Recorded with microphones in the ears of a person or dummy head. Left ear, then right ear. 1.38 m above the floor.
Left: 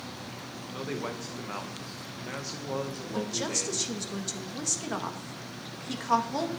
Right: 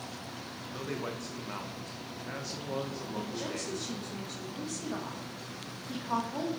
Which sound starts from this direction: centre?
A man speaking, at 0.7 s.